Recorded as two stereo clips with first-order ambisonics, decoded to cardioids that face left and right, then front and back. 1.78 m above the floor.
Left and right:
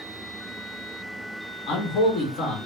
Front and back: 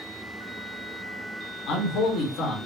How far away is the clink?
No clink in this recording.